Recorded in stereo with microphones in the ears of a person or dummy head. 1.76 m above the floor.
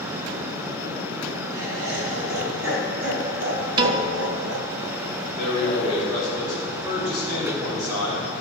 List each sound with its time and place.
1.5 s laughter: 85° right, 3 m; by 4.7 s 55° right (ahead or behind), 0.5 m
3.8 s a piano: 30° right (ahead or behind), 0.6 m
5.3 s a man speaking: 30° right (ahead or behind), 4.5 m